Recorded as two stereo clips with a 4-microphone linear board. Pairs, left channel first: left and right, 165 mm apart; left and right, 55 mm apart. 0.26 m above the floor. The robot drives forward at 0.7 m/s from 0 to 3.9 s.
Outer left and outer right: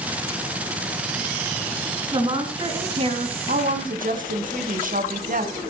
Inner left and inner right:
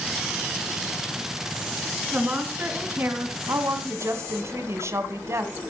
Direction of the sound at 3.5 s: 60° right (ahead or behind).